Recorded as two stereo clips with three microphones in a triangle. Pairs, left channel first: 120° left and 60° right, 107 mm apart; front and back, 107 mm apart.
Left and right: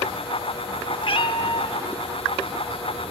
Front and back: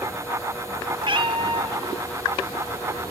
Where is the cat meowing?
150° left, 0.8 m.